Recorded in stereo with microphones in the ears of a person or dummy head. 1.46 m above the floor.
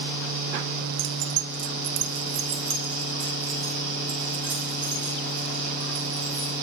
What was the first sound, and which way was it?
Keys jangling, 65° right (ahead or behind).